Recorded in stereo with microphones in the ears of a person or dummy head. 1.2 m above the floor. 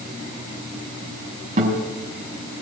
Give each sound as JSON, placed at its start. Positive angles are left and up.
{"t": 1.6, "sound": "a guitar", "side_deg": -45, "distance_m": 6.5}